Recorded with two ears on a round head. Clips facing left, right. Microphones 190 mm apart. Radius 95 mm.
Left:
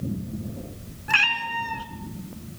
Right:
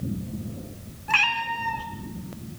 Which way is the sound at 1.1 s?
10° left (ahead or behind).